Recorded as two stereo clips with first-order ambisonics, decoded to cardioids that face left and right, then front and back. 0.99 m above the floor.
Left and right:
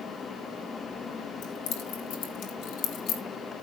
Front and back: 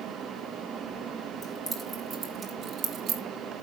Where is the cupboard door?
No cupboard door in this recording.